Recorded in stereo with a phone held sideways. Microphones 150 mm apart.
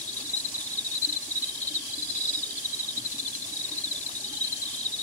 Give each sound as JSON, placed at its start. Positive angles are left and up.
{"t": 0.0, "sound": "an insect", "side_deg": 60}